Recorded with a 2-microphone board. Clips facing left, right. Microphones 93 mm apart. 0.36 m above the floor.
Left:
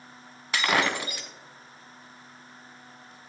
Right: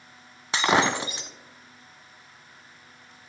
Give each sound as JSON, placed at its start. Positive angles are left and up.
{"t": 0.5, "sound": "breaking glass", "side_deg": -25, "distance_m": 0.6}